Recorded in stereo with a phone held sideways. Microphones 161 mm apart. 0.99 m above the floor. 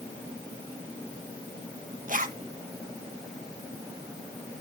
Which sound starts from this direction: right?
A zipper, at 2.1 s.